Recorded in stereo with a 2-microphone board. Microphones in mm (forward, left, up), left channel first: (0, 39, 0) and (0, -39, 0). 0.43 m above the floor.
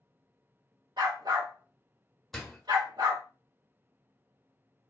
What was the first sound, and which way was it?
A dog barking, 65° right (ahead or behind).